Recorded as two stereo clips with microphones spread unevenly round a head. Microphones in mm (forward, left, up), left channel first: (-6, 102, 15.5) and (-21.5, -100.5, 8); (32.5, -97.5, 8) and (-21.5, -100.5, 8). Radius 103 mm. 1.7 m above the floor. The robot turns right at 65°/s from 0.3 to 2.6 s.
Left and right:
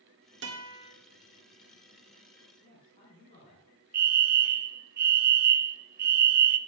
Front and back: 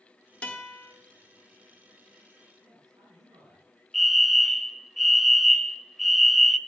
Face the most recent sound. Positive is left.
turn(degrees=-85)